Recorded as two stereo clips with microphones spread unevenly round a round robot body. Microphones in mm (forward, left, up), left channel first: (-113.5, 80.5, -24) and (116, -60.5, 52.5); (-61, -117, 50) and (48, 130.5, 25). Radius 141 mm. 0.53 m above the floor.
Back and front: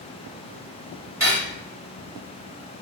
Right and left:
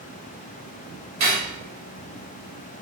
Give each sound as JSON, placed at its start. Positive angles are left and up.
{"t": 1.2, "sound": "cutlery clinking", "azimuth_deg": 50, "distance_m": 1.5}